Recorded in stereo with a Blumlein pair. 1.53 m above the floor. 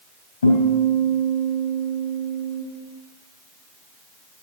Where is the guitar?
70° left, 4 m.